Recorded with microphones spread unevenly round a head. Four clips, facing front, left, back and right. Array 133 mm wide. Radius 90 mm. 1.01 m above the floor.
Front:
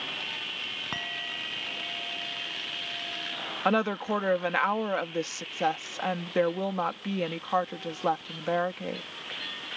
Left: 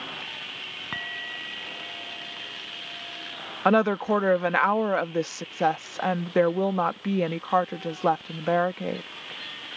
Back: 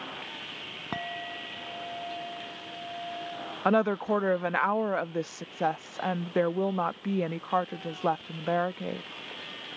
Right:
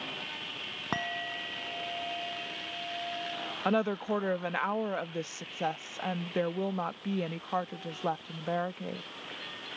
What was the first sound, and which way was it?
A clink, 125° right.